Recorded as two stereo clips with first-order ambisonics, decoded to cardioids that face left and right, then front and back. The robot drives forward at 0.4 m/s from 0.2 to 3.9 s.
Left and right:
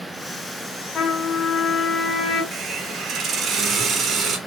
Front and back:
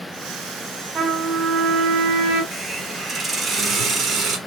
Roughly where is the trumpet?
Behind left.